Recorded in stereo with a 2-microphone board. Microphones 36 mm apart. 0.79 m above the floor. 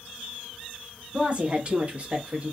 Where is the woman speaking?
30° right (ahead or behind), 1.0 m; by 2.5 s 35° right (ahead or behind), 0.9 m.